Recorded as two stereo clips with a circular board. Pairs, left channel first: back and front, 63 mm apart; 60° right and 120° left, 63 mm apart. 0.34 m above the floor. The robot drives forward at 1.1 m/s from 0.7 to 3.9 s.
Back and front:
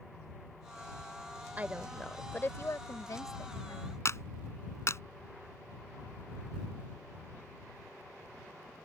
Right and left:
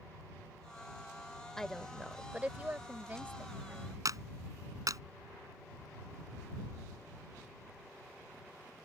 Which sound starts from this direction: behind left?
A clap, at 4.0 s.